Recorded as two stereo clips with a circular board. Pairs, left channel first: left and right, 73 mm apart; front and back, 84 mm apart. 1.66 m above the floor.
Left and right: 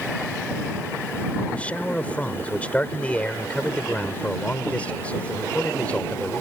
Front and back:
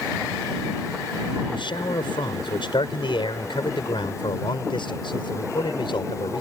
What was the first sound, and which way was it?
A man speaking, 20° left.